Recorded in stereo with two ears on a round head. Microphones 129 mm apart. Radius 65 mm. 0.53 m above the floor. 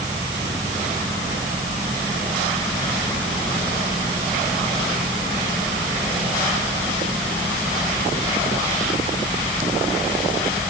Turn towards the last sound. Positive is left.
No sound to turn to.